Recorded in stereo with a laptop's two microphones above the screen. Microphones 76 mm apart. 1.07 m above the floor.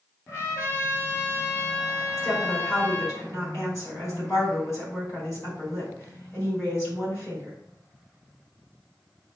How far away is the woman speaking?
About 4 m.